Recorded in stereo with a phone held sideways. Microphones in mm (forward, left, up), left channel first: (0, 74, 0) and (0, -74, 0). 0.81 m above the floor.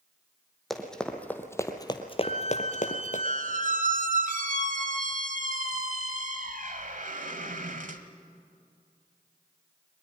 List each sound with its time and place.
0.7 s running footsteps: centre (ahead or behind), 2.5 m; by 3.2 s 60° left (ahead or behind), 1.6 m
2.2 s a squeak: 65° right (ahead or behind), 1.2 m